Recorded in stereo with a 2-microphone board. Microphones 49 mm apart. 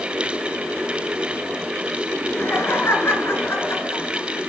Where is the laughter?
50° left (ahead or behind), 2.5 m.